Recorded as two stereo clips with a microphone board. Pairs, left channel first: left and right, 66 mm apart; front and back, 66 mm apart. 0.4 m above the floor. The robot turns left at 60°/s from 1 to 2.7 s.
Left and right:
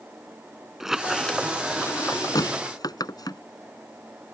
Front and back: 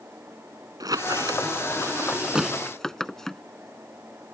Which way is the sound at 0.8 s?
175° right.